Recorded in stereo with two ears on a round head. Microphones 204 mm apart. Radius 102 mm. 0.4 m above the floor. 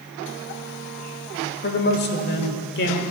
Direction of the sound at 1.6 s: 50° left (ahead or behind).